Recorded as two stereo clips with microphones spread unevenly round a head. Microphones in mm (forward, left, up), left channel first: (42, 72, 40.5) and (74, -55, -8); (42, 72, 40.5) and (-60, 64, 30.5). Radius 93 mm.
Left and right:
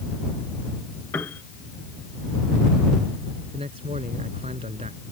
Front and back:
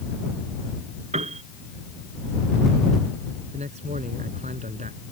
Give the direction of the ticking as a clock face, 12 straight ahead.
No ticking in this recording.